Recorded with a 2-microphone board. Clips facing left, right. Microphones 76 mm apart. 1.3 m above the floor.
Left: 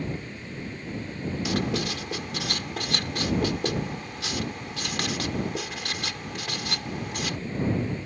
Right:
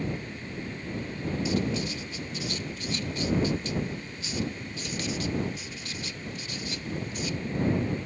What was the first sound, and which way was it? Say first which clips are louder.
Writing: left 2 dB; 75° left (ahead or behind).